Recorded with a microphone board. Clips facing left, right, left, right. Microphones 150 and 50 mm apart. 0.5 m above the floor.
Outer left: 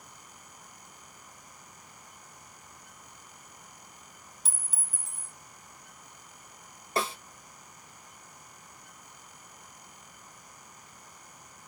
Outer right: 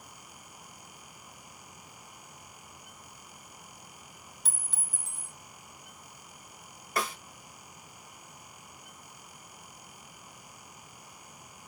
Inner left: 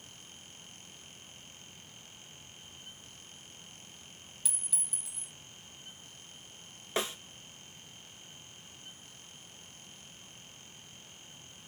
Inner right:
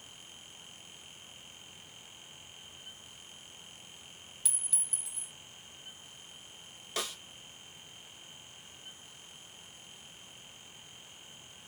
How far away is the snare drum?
About 0.5 m.